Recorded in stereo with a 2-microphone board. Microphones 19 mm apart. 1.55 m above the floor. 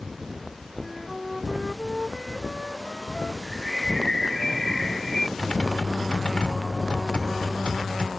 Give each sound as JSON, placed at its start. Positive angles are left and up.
{"t": 0.8, "sound": "a flute", "side_deg": 0}
{"t": 3.4, "sound": "a bird", "side_deg": 15}
{"t": 5.4, "sound": "typing on a keyboard", "side_deg": 65}